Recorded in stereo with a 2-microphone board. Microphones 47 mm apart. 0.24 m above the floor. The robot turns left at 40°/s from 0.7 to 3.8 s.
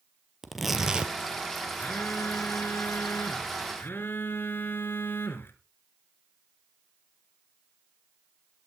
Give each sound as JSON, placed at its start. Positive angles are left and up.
{"t": 0.4, "sound": "tearing paper", "side_deg": -5, "distance_m": 1.2}
{"t": 1.8, "sound": "a phone buzzing", "azimuth_deg": 140, "distance_m": 2.5}